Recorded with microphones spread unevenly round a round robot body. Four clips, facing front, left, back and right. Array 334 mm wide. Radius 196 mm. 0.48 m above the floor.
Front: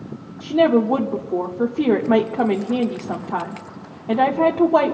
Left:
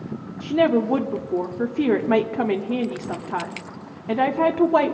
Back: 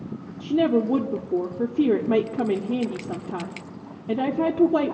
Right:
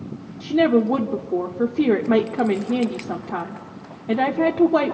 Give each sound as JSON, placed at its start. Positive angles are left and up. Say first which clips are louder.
{"t": 0.4, "sound": "a woman speaking", "louder": "right 2 dB, front 5 dB", "azimuth_deg": -155, "distance_m": 0.8}